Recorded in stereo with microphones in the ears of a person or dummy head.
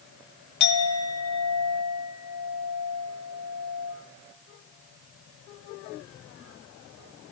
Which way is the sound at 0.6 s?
85° left.